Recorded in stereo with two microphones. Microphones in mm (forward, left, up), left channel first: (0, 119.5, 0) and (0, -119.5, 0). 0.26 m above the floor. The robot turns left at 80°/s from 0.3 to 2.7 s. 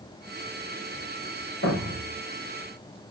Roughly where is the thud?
Left.